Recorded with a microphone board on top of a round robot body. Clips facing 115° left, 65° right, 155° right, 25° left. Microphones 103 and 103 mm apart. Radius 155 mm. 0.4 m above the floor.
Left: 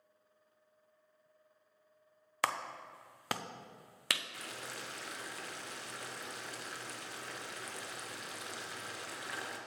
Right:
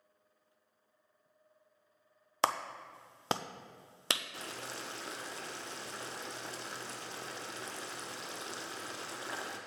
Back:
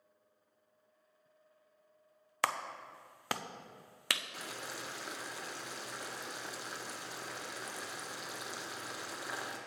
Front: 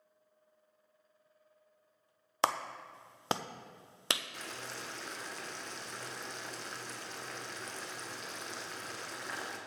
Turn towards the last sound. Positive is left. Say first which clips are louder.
# right 2 dB, even
turn(degrees=-85)